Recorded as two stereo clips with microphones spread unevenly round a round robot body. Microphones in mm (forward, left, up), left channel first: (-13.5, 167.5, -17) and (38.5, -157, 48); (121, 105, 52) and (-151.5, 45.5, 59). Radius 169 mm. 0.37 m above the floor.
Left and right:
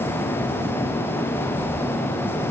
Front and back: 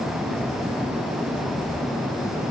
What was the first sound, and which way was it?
Only background noise.